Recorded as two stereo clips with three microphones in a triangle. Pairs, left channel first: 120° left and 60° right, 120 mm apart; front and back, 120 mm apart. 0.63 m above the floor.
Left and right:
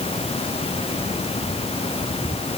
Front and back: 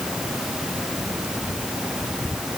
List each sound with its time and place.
Only background noise.